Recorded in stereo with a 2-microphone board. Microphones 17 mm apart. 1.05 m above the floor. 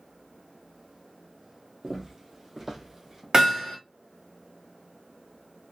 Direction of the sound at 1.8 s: 40° right (ahead or behind).